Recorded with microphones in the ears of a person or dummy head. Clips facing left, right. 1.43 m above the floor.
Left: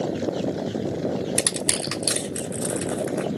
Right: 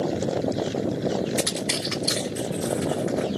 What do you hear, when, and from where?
1.4 s crushing: 40° left (ahead or behind), 1.0 m